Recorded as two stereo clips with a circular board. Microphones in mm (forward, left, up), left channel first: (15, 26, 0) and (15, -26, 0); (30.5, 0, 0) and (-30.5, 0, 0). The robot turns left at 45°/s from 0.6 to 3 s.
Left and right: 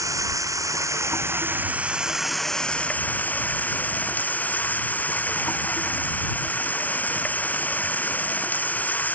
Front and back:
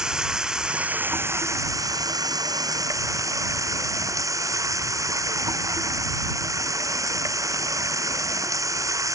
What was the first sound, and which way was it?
Running water, 100° right.